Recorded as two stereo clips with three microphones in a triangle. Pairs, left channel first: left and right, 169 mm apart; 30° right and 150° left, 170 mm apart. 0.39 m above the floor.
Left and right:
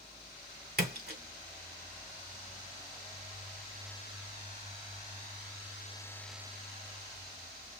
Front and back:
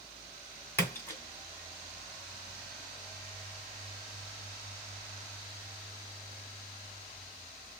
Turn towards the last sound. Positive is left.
turn(degrees=-105)